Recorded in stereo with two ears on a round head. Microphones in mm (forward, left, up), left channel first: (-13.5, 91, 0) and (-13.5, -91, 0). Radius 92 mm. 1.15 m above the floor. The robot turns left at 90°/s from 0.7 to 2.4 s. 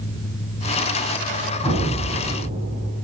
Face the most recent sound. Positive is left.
turn(degrees=-50)